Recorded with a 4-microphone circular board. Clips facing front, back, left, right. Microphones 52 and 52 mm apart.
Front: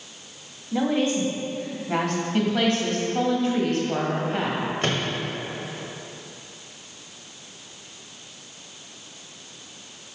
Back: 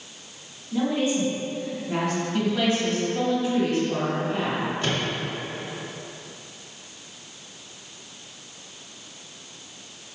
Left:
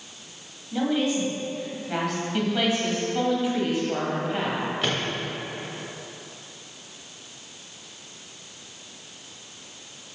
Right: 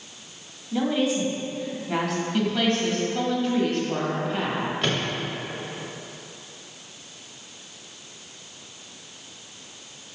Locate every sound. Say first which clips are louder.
0.7 s a woman speaking: front 1 dB, right 1 dB; straight ahead, 1.5 m
2.3 s a woman speaking: front 2 dB, right 1 dB; 15° left, 1.6 m
4.8 s a microwave: front 1 dB, right 2 dB; 5° left, 1.0 m